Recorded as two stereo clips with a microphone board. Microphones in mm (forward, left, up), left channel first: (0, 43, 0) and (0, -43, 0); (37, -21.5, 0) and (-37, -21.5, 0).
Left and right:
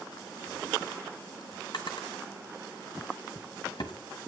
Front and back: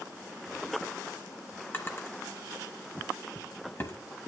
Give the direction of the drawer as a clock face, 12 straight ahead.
10 o'clock.